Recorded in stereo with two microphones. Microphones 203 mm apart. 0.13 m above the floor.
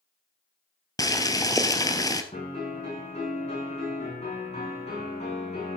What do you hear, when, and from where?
1.0 s boiling: 15° left (ahead or behind), 1.2 m
2.3 s a piano: 35° left (ahead or behind), 8 m